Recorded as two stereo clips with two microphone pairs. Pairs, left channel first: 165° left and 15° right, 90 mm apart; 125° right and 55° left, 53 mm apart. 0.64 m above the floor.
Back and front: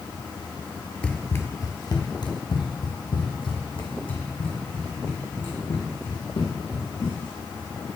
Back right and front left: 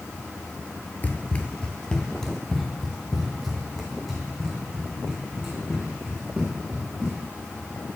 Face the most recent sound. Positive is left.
turn(degrees=135)